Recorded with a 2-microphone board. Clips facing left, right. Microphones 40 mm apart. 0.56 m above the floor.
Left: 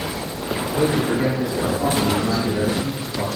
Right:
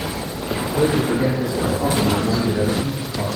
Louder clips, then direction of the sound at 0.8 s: Right 1 dB; 50° left (ahead or behind).